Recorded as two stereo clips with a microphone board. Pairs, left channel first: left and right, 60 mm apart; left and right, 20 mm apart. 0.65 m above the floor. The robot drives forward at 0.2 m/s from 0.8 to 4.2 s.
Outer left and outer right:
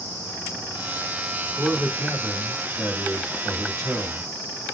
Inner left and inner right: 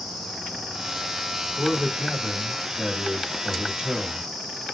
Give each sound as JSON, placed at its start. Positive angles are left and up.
{"t": 1.6, "sound": "a man speaking", "side_deg": -60, "distance_m": 1.8}